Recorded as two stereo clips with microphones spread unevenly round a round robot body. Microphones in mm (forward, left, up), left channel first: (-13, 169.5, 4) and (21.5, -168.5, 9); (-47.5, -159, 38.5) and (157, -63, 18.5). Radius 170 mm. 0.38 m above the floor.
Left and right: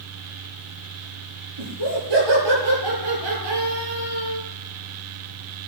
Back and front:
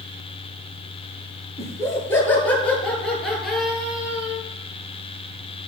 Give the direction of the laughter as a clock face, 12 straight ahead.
3 o'clock.